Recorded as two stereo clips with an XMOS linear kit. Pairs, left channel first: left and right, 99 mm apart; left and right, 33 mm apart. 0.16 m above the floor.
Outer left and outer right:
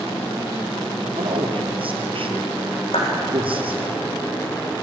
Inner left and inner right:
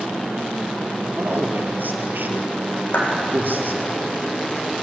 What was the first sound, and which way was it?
A man speaking, 65° right (ahead or behind).